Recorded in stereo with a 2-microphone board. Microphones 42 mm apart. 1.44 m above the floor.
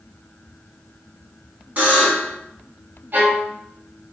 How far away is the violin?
About 0.7 m.